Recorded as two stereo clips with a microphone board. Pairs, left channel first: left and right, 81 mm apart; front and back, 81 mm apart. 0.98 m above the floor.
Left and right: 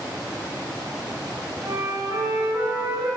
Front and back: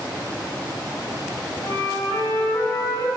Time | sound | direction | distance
1.6 | a flute | 45° right | 6.5 m